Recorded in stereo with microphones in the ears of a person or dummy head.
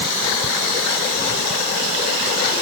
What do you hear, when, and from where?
Only background noise.